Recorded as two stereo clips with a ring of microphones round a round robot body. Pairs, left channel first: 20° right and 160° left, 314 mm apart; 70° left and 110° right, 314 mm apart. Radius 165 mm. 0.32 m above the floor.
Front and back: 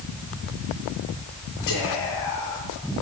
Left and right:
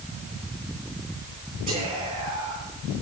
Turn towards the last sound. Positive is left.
turn(degrees=-50)